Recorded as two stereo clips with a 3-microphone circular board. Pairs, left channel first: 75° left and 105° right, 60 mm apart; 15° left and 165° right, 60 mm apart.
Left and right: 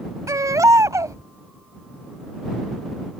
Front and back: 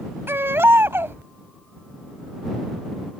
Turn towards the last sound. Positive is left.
turn(degrees=-120)